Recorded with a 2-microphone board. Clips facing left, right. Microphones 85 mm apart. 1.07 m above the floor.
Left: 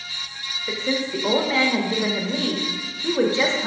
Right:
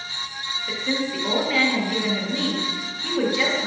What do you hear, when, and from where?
0.7 s a woman speaking: 25° left (ahead or behind), 0.6 m